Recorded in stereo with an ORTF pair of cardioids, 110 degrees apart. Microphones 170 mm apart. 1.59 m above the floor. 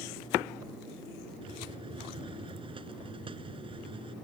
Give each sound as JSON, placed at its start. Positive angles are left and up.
{"t": 1.4, "sound": "a hiss", "azimuth_deg": -30}